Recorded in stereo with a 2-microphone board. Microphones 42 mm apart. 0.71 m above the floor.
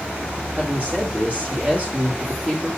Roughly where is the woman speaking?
Right.